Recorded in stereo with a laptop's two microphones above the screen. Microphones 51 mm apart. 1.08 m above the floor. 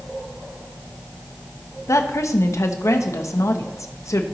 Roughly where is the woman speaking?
Left.